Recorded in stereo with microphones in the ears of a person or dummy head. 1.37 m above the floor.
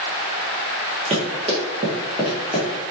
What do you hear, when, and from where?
1.1 s running footsteps: 30° right (ahead or behind), 2 m; by 2.7 s 5° left (ahead or behind), 2 m